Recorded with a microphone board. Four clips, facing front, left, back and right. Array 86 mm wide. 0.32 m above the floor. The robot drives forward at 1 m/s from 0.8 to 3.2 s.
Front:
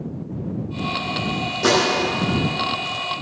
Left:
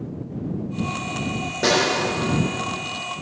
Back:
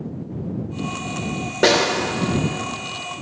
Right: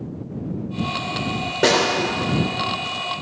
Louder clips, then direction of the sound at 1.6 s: Right 2 dB, back 2 dB; 160° right.